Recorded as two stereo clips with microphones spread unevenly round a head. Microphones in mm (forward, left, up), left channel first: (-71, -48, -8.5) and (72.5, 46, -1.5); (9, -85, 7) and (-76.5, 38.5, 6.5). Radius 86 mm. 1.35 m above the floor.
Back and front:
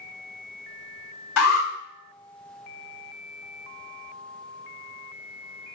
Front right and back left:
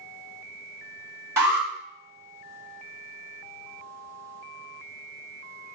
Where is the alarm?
160° right, 1.9 m.